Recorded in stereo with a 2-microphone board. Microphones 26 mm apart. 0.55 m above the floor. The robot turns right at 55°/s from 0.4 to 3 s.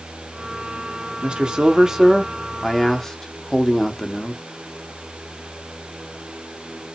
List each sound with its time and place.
1.2 s a man speaking: 65° right, 0.9 m; by 4.4 s 35° left, 0.9 m